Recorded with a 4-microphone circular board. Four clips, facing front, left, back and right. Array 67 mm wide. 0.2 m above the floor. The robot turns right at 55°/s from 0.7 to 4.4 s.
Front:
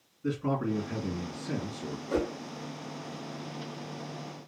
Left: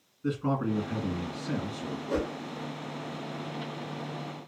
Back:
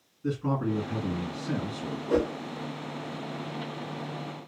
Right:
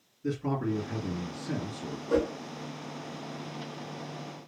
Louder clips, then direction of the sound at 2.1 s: Right 4 dB, back 4 dB; 165° right.